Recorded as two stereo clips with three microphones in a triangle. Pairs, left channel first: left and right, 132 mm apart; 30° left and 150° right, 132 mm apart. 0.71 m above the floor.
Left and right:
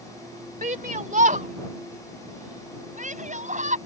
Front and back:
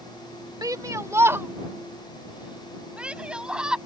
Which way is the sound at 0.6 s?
90° right.